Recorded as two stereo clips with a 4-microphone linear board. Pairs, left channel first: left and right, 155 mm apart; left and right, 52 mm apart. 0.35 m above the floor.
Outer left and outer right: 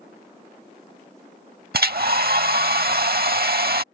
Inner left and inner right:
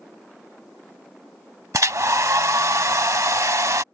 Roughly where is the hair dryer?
Right.